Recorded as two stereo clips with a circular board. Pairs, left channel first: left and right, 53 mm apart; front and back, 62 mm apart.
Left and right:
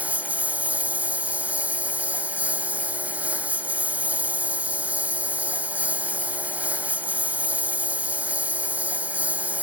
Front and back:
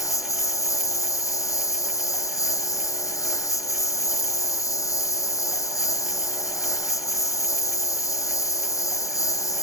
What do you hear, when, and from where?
0.0 s a lawn mower: 30° right